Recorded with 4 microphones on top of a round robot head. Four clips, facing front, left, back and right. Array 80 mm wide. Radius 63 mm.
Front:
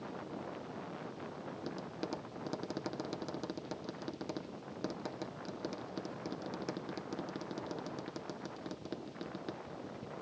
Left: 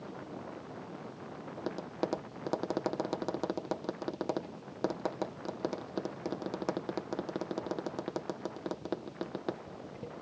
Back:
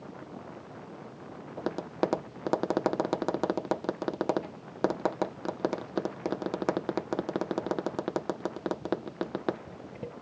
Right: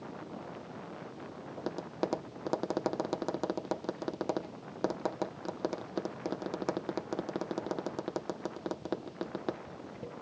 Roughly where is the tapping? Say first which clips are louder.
Right 1 dB, back 14 dB; behind.